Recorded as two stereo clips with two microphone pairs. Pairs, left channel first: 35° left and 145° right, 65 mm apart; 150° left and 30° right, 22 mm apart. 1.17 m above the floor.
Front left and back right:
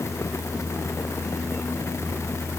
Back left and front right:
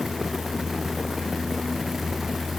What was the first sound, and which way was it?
Only background noise.